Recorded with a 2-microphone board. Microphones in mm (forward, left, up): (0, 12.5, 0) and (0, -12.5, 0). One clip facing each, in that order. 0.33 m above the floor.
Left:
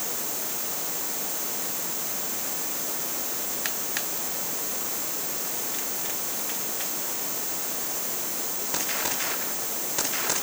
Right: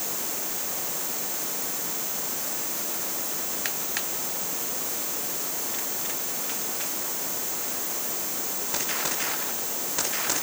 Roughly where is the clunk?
I don't hear a clunk.